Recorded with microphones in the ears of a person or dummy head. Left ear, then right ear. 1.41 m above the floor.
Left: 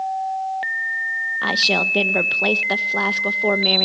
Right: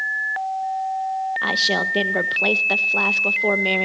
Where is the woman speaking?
5° left (ahead or behind), 0.8 m.